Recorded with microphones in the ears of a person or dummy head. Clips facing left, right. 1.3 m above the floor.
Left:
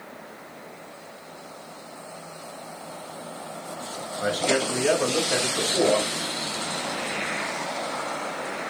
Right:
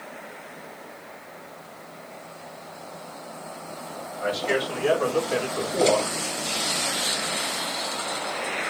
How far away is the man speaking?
About 1.6 m.